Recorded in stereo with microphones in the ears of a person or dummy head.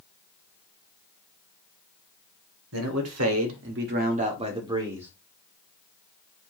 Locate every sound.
2.7 s a man speaking: 75° right (ahead or behind), 0.9 m; by 5.1 s 5° right (ahead or behind), 0.9 m